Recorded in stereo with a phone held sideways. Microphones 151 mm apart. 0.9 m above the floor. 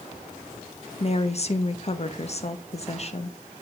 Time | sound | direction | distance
1.0 | a woman speaking | 45° left (ahead or behind) | 0.7 m